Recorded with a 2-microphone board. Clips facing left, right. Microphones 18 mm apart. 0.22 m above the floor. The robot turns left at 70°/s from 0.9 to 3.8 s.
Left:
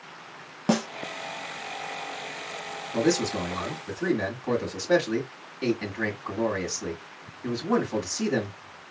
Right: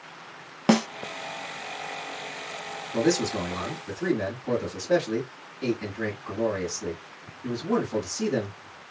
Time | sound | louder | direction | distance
0.7 | a snare drum | right 4 dB | 40° right (ahead or behind) | 0.7 m
2.9 | a man speaking | even | 145° left | 2.0 m